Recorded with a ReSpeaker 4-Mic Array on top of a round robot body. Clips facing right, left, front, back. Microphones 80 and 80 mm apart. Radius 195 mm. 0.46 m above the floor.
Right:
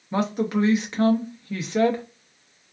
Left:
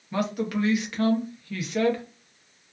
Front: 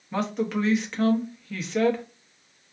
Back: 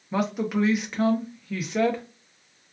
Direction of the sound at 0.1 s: 105° right.